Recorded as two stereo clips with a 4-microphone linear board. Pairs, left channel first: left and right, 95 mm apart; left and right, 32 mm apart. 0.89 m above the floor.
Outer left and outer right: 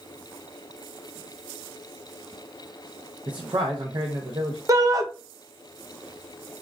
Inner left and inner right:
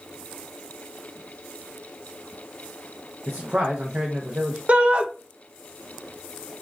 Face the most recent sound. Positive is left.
turn(degrees=-40)  # may be behind; listen again after turning